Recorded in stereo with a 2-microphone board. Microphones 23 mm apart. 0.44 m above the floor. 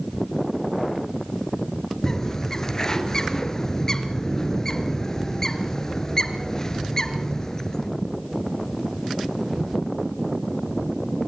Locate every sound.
2.0 s a bird: 25° left (ahead or behind), 2.5 m